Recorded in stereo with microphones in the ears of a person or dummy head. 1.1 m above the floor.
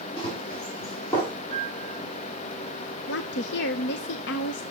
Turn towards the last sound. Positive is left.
turn(degrees=60)  # may be behind; listen again after turning